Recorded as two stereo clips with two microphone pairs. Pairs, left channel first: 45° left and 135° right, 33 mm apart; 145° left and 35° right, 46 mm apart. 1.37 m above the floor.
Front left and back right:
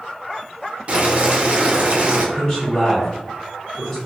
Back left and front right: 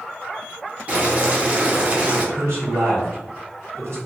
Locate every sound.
0.9 s boiling: 90° right, 0.7 m
2.4 s a man speaking: 20° right, 1.6 m